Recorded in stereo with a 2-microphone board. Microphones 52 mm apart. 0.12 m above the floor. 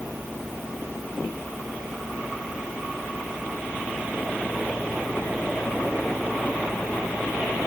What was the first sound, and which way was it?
Only background noise.